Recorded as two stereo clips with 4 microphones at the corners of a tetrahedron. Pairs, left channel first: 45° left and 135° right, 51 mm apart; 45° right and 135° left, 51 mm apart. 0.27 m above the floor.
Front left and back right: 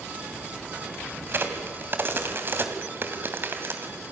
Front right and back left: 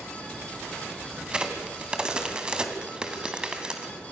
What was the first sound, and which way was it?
A crack, 155° right.